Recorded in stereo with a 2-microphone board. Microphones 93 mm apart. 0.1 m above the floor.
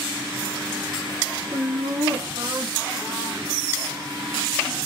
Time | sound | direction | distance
1.5 | laughter | 30° right (ahead or behind) | 3 m